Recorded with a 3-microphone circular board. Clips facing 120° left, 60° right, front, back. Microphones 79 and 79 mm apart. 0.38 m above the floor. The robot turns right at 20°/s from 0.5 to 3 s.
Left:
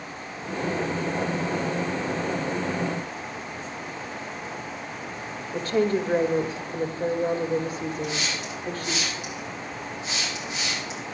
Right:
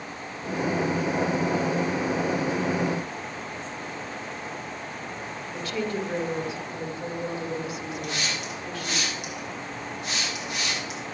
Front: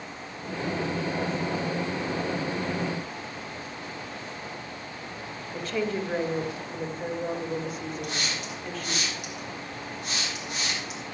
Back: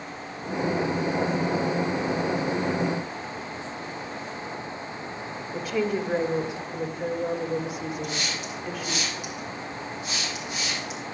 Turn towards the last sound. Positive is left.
turn(degrees=-30)